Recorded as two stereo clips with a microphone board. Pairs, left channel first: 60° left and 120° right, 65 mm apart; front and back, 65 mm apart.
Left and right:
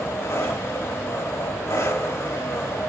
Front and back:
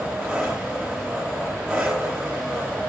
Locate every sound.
0.0 s an engine running: 100° left, 7.5 m